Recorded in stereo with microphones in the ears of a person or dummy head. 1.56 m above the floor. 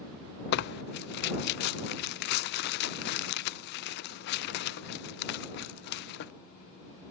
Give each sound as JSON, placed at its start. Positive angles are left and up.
{"t": 0.5, "sound": "tearing paper", "side_deg": 55}